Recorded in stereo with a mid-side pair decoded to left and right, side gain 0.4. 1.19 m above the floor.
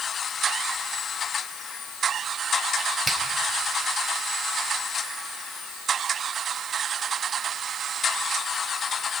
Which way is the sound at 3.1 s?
40° right.